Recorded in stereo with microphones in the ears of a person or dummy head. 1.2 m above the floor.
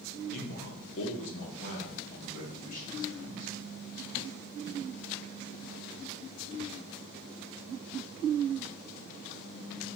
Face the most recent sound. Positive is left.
turn(degrees=30)  # may be behind; listen again after turning